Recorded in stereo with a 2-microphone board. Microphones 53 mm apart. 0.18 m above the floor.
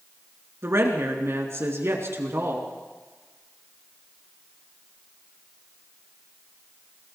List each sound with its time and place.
0.6 s a woman speaking: 60° right (ahead or behind), 3 m